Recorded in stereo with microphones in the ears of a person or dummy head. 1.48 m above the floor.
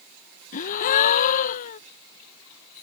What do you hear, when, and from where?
0.5 s a gasp: 50° left (ahead or behind)